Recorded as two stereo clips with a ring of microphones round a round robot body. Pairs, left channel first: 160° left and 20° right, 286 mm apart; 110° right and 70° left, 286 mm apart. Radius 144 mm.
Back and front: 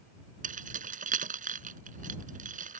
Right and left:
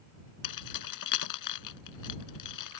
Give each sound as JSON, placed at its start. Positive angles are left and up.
{"t": 0.4, "sound": "keys jangling", "azimuth_deg": -85}